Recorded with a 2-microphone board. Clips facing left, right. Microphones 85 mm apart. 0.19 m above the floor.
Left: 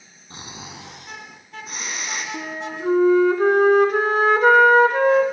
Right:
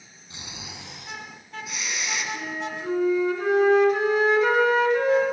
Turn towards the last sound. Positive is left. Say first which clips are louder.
# left 2 dB
turn(degrees=50)  # may be behind; listen again after turning